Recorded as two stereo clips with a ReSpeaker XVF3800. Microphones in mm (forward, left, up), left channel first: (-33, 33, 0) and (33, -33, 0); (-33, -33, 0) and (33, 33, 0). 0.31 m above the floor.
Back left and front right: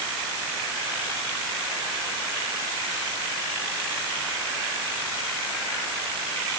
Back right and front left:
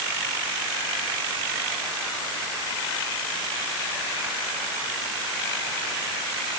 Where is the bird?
I don't hear a bird.